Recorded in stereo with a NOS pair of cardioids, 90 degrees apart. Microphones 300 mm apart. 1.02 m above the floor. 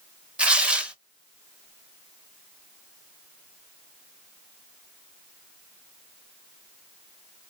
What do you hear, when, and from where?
0.4 s tearing paper: 5° right, 0.6 m